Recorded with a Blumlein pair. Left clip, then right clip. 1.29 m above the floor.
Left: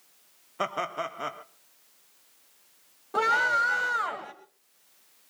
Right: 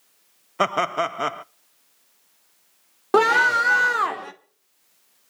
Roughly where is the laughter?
Ahead right.